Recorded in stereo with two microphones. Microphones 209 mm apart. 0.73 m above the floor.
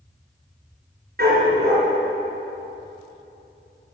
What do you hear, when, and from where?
1.2 s a dog barking: 55° right (ahead or behind), 3 m